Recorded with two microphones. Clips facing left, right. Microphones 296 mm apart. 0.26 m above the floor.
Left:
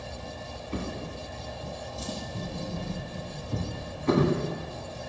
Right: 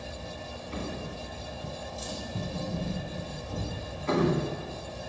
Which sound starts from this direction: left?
A drawer, at 0.7 s.